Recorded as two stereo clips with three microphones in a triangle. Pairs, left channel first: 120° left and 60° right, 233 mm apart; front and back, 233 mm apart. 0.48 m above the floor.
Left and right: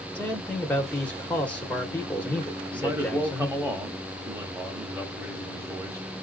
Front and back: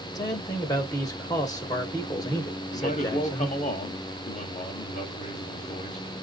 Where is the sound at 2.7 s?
5° left, 1.1 m.